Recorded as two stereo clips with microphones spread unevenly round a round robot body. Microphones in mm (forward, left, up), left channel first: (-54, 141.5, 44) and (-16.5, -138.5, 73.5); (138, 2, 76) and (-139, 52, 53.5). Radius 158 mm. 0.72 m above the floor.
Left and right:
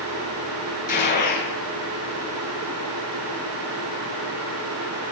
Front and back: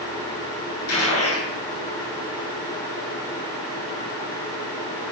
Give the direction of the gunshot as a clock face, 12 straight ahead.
11 o'clock.